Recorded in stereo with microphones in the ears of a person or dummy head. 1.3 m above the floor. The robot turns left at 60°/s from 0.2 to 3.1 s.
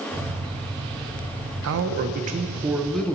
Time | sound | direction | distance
1.6 | a man speaking | 105° right | 0.6 m